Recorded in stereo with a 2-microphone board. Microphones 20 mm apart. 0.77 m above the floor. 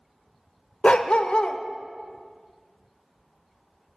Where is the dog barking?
55° left (ahead or behind), 0.6 m.